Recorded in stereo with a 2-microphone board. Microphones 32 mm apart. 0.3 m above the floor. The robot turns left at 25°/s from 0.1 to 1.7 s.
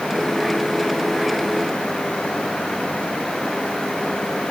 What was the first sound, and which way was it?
Only background noise.